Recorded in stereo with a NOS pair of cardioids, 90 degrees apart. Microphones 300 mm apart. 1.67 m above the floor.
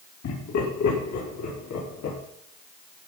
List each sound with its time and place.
0.2 s laughter: 60° left, 5 m; by 2.2 s 75° left, 5.5 m